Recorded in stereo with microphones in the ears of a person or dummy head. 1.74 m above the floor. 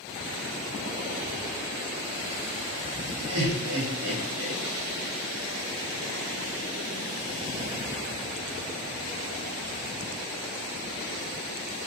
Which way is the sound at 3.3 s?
55° right (ahead or behind).